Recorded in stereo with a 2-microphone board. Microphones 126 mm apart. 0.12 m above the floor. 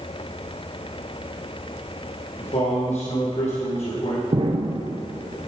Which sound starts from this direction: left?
A man speaking, at 2.4 s.